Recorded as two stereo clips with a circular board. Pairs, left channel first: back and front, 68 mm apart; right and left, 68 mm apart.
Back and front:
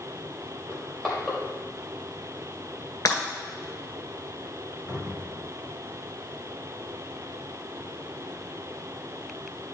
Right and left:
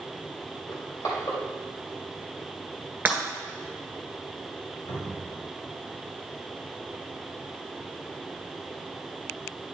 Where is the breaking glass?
155° left, 1.7 m.